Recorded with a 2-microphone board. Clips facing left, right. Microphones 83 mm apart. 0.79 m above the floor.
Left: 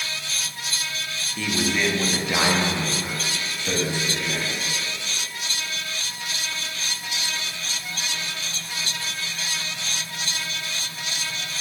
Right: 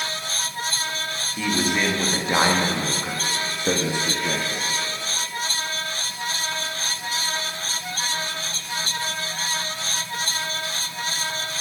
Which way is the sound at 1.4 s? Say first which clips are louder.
Right 1 dB; 10° right (ahead or behind).